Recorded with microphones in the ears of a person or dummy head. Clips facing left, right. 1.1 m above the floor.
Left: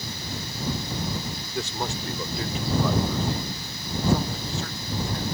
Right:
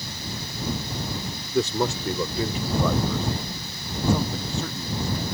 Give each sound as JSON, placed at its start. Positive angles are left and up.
{"t": 1.5, "sound": "a man speaking", "side_deg": -80}